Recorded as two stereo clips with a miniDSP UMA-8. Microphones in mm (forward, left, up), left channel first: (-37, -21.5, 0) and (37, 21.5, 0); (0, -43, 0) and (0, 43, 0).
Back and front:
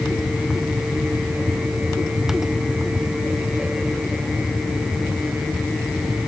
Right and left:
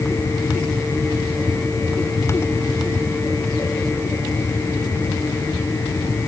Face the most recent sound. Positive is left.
No sound to turn to.